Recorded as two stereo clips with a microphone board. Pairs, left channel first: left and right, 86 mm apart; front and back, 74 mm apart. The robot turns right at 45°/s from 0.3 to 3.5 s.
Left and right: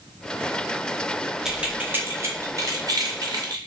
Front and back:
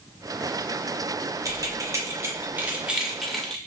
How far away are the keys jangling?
About 0.6 m.